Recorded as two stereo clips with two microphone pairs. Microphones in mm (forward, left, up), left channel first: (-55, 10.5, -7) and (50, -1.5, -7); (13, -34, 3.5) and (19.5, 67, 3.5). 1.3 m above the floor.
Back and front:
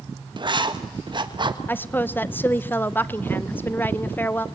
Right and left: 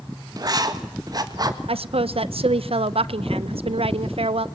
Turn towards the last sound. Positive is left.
turn(degrees=100)